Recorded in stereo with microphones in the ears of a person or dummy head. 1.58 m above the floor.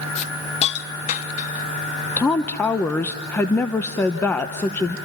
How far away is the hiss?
About 0.8 m.